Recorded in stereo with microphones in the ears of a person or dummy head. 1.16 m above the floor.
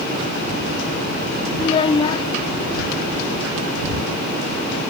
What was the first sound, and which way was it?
A child speaking, 30° left (ahead or behind).